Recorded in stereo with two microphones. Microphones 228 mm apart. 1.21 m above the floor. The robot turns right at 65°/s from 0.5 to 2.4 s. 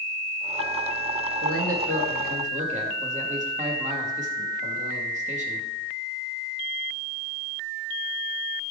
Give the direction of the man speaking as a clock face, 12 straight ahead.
3 o'clock.